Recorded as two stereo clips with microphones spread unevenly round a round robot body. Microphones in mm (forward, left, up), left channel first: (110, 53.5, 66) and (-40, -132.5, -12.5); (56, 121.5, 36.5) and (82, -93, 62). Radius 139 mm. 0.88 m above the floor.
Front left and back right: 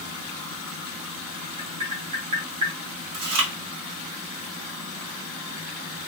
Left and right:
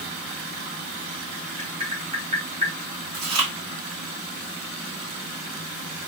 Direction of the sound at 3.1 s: 140° right.